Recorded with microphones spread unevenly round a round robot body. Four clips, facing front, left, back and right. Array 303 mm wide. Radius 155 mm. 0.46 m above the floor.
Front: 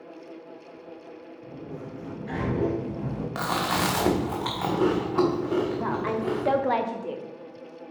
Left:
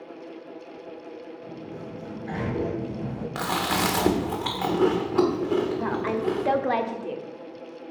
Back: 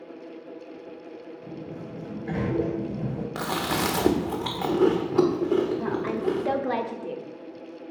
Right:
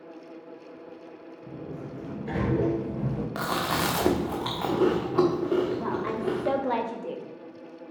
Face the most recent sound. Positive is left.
turn(degrees=90)